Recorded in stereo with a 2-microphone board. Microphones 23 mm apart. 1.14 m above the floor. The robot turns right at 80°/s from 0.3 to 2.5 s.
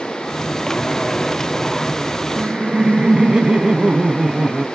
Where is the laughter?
45° right (ahead or behind), 0.6 m; by 4.7 s 35° right (ahead or behind), 0.6 m.